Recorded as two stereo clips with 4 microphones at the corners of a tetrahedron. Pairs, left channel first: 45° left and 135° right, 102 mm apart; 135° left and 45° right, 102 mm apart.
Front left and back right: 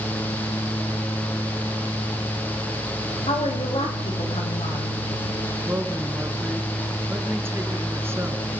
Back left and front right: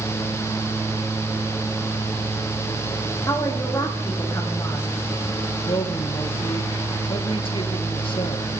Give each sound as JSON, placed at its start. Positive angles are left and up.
{"t": 3.3, "sound": "a woman speaking", "azimuth_deg": 75, "distance_m": 8.5}
{"t": 5.7, "sound": "a man speaking", "azimuth_deg": 160, "distance_m": 2.5}